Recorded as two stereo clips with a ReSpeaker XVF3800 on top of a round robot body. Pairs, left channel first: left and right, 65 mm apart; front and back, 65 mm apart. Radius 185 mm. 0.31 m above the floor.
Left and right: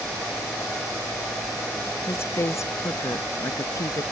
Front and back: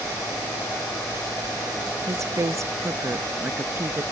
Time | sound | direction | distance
2.1 | a woman speaking | 140° left | ?